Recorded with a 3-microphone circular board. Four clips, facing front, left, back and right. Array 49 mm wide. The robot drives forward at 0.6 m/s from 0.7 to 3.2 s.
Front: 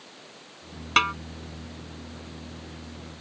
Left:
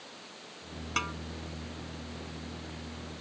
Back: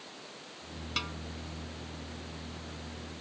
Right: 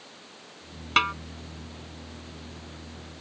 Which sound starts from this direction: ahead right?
A snare drum, at 1.0 s.